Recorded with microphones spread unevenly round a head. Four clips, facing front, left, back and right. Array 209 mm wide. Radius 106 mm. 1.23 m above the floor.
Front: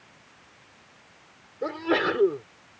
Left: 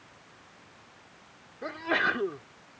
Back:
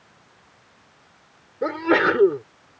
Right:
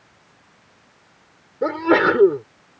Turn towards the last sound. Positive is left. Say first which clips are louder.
# right 13 dB, back 6 dB
turn(degrees=-110)